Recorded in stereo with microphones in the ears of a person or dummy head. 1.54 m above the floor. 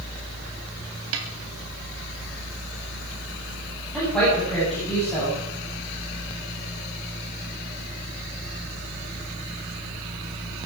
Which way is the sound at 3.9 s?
5° left (ahead or behind).